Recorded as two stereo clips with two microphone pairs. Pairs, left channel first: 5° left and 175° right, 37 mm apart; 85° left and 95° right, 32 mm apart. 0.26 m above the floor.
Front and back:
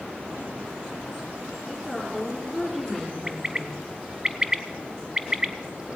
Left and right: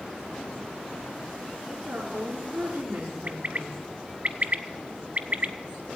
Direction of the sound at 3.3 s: 105° right.